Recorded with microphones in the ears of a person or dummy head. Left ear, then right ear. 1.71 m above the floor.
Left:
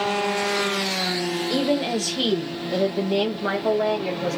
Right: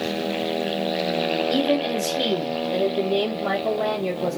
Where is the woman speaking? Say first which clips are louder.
Right 1 dB; 15° left (ahead or behind), 0.7 m; by 4.4 s 40° left (ahead or behind), 2.5 m.